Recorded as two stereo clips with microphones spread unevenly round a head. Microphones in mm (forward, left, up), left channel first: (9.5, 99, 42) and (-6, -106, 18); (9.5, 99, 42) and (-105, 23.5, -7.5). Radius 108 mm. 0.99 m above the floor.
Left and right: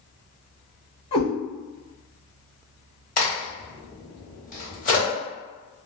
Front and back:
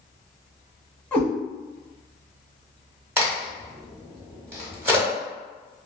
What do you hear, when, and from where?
1.1 s a cat meowing: 60° left, 1.0 m
3.2 s a crack: 130° left, 1.3 m